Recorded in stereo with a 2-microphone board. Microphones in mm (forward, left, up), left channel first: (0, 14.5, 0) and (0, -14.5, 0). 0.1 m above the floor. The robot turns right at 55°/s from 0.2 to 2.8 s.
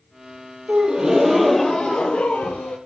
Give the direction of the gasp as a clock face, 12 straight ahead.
1 o'clock.